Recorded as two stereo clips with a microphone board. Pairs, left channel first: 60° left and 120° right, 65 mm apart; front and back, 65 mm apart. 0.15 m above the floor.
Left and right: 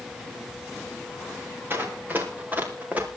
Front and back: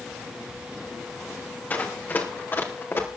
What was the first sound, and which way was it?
Running footsteps, 65° right.